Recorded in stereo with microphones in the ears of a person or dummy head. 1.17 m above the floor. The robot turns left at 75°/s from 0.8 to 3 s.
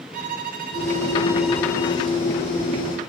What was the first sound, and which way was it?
A violin, 135° right.